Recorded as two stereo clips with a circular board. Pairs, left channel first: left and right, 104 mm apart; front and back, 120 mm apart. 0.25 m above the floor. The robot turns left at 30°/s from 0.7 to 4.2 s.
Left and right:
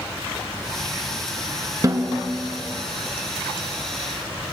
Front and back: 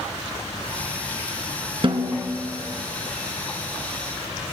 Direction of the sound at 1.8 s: 140° right.